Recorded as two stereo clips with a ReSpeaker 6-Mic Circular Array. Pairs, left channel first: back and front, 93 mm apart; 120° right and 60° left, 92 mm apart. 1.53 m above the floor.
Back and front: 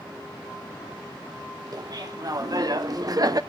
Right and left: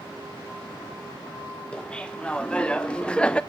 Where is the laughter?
40° right, 1.7 m; by 3.4 s 45° right, 0.6 m.